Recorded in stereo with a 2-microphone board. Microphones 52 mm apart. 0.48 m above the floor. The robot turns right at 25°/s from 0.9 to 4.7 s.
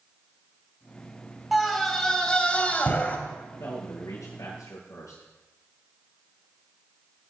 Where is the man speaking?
75° left (ahead or behind), 6.5 m.